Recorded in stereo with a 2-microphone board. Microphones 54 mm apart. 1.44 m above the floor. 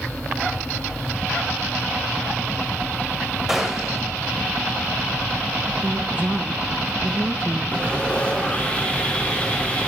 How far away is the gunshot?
About 2.5 m.